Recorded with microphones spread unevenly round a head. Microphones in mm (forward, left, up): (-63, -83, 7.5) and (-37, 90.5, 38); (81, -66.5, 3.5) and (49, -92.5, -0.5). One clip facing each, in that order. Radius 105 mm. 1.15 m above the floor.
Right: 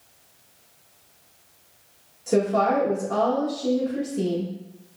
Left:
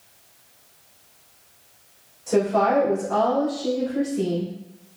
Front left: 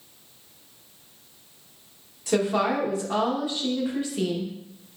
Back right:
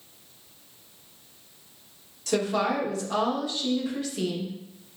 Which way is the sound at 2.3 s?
30° right.